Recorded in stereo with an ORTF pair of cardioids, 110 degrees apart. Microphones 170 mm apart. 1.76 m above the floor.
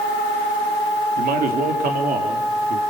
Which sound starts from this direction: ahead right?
A man speaking, at 1.2 s.